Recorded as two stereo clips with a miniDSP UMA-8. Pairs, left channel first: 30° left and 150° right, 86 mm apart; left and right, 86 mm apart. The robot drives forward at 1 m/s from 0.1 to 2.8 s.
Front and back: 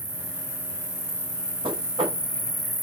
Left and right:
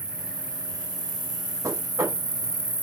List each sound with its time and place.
0.0 s an insect: 15° left, 3.5 m; by 2.8 s 50° left, 1.7 m
1.6 s knocking: 145° right, 3.5 m; by 2.2 s 150° right, 4 m